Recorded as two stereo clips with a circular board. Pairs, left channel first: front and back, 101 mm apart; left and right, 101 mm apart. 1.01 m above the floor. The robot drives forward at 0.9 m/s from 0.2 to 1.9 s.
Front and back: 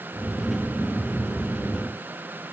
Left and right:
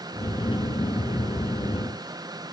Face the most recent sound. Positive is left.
No sound to turn to.